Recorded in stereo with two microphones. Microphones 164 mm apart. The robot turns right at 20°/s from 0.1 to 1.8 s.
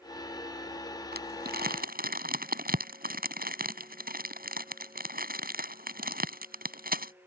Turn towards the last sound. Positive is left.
turn(degrees=-65)  # may be behind; listen again after turning